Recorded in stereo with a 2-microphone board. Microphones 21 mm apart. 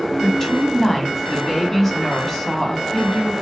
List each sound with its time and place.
0.2 s a woman speaking: 15° left (ahead or behind), 1.3 m